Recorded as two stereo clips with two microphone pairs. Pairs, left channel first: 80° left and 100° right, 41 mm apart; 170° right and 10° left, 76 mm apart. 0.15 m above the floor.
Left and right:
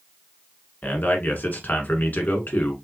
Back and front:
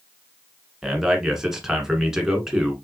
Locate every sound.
0.8 s a man speaking: 90° left, 1.4 m